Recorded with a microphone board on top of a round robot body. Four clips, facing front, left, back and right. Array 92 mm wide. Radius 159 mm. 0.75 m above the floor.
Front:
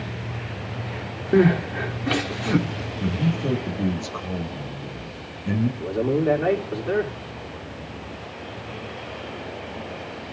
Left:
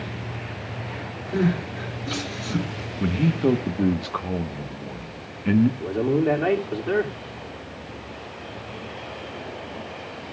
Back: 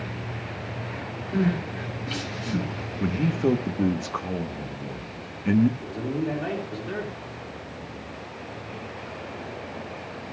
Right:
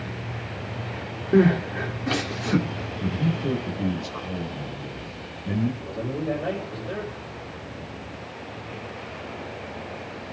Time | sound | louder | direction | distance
1.3 | crying | right 5 dB, front 8 dB | 30° right | 1.3 m
3.0 | a man speaking | left 6 dB, back 2 dB | 120° left | 1.5 m
5.8 | a man speaking | left 8 dB, front 7 dB | 60° left | 2.5 m